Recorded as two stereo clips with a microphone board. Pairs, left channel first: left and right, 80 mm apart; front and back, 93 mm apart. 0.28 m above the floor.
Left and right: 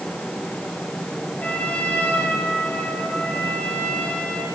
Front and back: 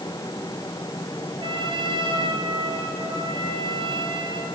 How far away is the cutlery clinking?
I don't hear cutlery clinking.